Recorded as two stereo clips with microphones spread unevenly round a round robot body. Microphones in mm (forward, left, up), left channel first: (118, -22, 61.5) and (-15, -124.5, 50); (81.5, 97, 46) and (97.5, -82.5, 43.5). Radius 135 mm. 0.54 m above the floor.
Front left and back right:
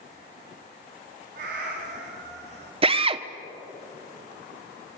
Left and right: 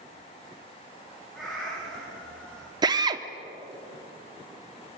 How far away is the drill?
About 1.2 m.